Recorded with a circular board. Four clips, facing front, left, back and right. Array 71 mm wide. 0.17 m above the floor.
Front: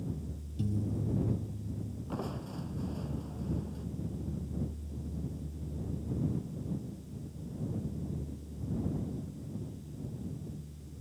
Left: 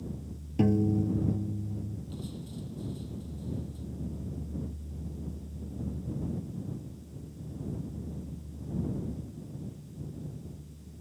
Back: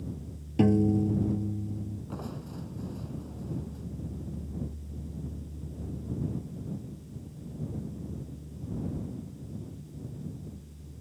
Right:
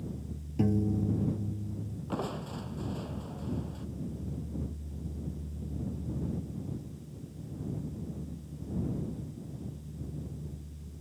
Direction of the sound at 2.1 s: 85° right.